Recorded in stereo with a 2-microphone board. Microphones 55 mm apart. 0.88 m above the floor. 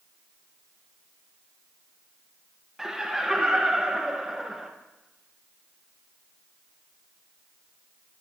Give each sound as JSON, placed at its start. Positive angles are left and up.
{"t": 2.8, "sound": "laughter", "side_deg": -10, "distance_m": 0.9}